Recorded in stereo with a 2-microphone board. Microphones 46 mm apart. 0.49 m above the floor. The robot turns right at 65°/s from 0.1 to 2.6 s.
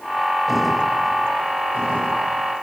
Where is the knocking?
No knocking in this recording.